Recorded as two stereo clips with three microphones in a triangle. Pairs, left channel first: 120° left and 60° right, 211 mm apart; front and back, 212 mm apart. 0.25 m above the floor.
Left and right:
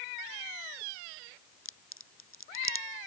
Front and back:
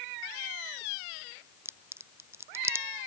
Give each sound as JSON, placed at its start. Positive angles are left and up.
{"t": 1.6, "sound": "a crack", "azimuth_deg": 100}